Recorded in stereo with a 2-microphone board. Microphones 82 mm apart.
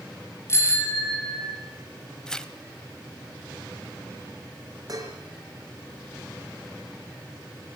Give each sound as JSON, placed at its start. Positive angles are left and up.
{"t": 0.5, "sound": "a bicycle bell", "side_deg": 30, "distance_m": 6.0}
{"t": 2.3, "sound": "tearing paper", "side_deg": 10, "distance_m": 1.3}
{"t": 4.9, "sound": "dishes clattering", "side_deg": -45, "distance_m": 4.5}